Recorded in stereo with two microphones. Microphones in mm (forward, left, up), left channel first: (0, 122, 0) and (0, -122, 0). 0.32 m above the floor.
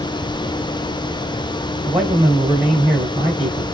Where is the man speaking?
25° right (ahead or behind), 1.8 m.